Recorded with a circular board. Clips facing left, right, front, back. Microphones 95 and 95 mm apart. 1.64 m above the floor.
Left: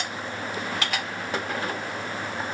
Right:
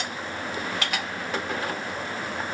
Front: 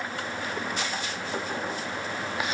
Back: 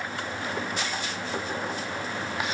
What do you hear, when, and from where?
Only background noise.